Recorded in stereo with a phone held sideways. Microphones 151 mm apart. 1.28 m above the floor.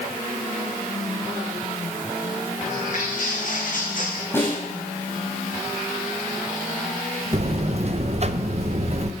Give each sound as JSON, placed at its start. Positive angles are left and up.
{"t": 2.7, "sound": "footsteps", "side_deg": 55, "distance_m": 4.0}
{"t": 4.3, "sound": "a snare drum", "side_deg": 15, "distance_m": 7.0}
{"t": 7.3, "sound": "a buzzer", "side_deg": -45, "distance_m": 0.7}